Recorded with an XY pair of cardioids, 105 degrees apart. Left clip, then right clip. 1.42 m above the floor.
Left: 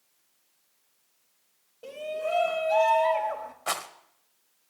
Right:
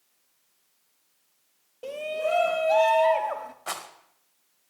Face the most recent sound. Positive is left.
turn(degrees=25)